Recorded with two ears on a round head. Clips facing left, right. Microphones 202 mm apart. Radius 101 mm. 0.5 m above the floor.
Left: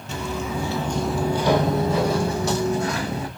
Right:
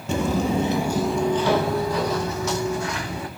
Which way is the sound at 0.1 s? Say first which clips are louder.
Right 6 dB; 45° right (ahead or behind).